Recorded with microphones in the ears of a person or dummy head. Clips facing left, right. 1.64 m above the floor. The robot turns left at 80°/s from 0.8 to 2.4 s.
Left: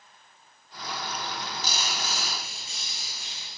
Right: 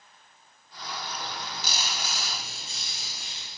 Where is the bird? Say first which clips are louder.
Left 2 dB; 25° right, 3 m; by 3.5 s 125° right, 3 m.